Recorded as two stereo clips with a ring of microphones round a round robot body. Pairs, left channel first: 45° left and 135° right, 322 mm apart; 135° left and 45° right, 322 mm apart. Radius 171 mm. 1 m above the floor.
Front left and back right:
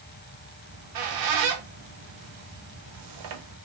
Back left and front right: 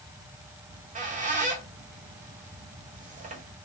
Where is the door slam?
I don't hear a door slam.